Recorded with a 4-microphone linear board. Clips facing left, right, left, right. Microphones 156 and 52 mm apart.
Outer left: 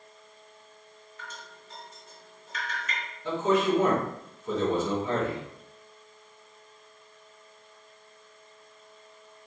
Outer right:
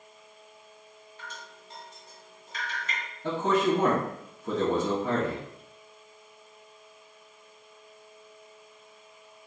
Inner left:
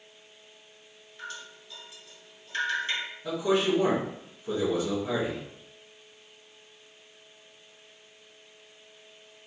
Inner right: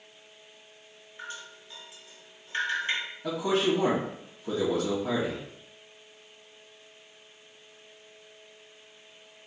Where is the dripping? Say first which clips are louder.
Even, even; 35° right (ahead or behind), 2 m.